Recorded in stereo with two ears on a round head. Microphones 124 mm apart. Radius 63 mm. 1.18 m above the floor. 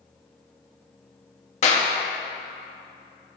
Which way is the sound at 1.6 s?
55° left (ahead or behind).